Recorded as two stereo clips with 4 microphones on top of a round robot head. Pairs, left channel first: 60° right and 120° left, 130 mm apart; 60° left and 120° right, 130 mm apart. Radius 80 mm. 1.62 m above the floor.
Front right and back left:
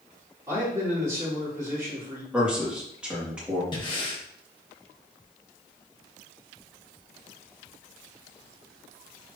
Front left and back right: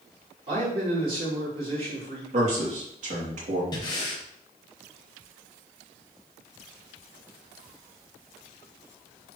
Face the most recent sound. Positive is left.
turn(degrees=0)